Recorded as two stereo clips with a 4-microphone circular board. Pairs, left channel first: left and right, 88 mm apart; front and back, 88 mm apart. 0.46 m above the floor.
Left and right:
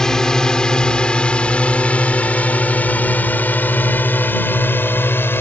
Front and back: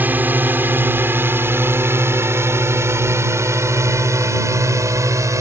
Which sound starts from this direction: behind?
A drone, at 0.0 s.